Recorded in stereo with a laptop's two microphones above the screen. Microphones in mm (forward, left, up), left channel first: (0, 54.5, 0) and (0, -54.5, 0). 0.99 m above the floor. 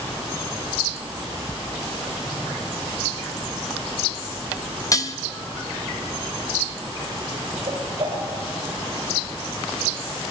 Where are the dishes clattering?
30° left (ahead or behind), 0.8 m.